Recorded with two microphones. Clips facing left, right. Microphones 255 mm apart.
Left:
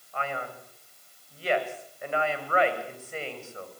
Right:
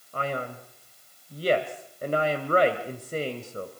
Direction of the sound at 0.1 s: 40° right (ahead or behind).